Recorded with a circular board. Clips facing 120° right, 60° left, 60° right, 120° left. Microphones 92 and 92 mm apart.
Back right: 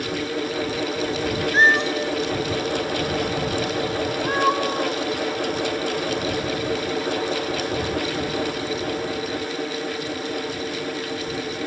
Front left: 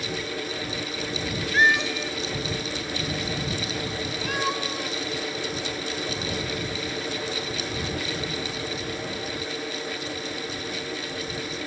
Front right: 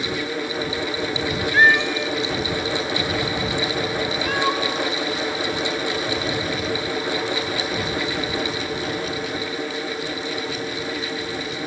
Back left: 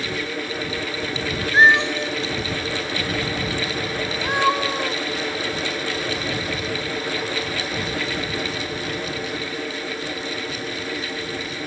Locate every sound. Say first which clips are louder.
1.5 s a cat meowing: back right 3 dB, back left 2 dB; 175° right